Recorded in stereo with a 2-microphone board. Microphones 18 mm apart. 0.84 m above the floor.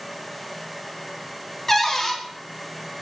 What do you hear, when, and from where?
1.7 s a cupboard door: 25° left (ahead or behind), 0.8 m